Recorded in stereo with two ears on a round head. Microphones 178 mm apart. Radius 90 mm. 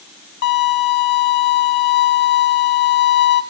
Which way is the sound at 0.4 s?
60° left (ahead or behind).